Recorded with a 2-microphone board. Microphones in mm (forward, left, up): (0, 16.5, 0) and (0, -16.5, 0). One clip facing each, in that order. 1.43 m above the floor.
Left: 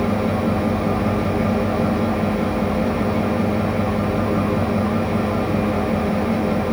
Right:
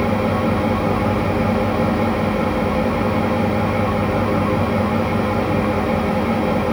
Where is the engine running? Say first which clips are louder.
Right 2 dB; 85° right, 5.5 m.